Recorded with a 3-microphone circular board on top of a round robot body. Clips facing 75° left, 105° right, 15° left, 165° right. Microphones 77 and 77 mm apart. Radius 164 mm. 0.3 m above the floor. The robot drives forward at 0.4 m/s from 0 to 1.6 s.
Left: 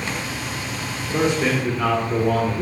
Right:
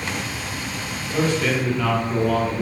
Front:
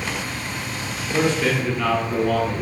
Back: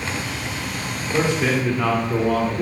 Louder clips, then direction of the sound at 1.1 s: Left 1 dB, even; 120° left.